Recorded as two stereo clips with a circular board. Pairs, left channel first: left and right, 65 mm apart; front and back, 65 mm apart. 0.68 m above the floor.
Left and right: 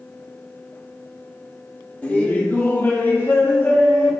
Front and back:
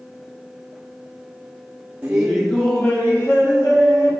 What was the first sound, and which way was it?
Laughter, 130° left.